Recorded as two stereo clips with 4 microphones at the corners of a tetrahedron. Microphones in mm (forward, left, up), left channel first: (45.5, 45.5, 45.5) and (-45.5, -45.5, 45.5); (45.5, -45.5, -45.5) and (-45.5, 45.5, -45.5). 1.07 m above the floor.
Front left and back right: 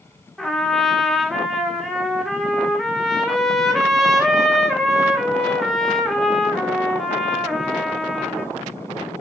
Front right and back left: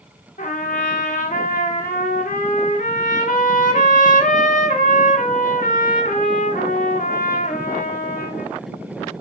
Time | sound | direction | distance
0.4 | a trumpet | 45° right | 1.4 m